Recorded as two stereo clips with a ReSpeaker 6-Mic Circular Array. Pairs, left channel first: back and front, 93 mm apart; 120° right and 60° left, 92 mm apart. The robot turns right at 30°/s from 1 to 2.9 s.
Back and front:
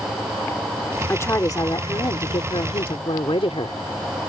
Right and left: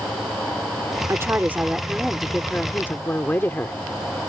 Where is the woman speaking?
120° left; by 4.2 s 175° left.